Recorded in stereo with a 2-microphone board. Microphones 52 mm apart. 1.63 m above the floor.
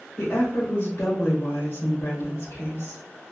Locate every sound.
0.2 s a woman speaking: 60° left (ahead or behind), 1.1 m